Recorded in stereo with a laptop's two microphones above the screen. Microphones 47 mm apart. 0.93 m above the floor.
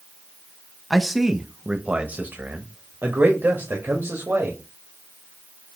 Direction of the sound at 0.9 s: Centre (ahead or behind).